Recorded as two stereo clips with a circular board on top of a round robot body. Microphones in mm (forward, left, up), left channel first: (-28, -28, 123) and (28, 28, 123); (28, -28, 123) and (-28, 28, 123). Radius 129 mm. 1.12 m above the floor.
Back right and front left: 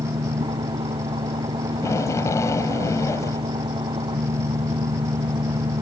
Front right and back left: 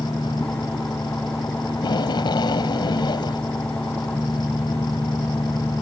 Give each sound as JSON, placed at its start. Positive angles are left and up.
{"t": 0.0, "sound": "an engine running", "azimuth_deg": 35}
{"t": 1.7, "sound": "tape being pulled", "azimuth_deg": -80}